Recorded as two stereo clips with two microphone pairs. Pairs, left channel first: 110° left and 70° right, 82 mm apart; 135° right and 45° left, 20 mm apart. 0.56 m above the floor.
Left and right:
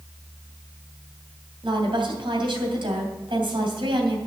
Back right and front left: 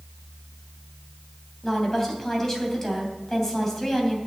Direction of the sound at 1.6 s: 60° right.